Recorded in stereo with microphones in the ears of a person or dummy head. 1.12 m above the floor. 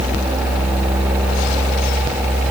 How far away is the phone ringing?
I don't hear a phone ringing.